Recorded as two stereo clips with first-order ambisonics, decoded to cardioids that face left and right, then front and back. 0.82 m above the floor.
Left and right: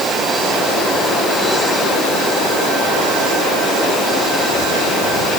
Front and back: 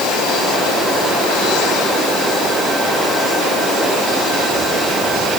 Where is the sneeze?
I don't hear a sneeze.